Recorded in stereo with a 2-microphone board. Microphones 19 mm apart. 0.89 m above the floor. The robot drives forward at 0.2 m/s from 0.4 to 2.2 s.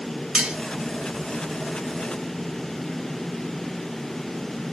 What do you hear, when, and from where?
0.3 s cutlery clinking: 60° right (ahead or behind), 1.2 m